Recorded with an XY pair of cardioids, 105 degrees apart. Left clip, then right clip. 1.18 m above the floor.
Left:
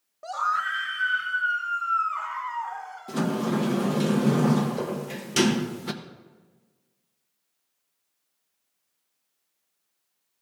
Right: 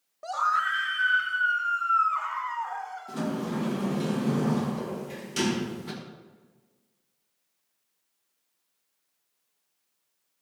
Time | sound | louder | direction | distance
0.2 | a scream | even | 5° right | 0.7 m
3.1 | a sliding door | left 7 dB | 55° left | 1.0 m